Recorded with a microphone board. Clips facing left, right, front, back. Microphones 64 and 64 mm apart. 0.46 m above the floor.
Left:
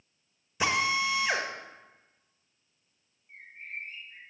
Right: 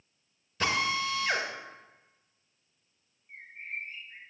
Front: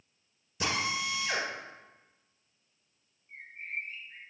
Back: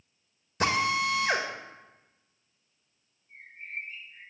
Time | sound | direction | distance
0.6 | a drill | 165° left | 1.7 m
3.3 | a bird | 25° right | 4 m